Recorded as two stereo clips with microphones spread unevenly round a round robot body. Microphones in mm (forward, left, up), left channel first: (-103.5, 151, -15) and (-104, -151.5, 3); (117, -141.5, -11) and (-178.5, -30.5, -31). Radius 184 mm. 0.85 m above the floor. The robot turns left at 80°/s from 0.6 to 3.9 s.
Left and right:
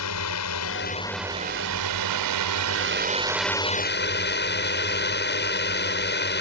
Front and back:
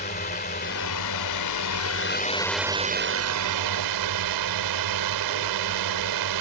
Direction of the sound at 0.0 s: 45° left.